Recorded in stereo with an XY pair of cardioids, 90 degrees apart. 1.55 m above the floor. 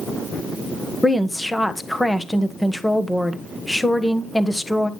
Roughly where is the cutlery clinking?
I don't hear cutlery clinking.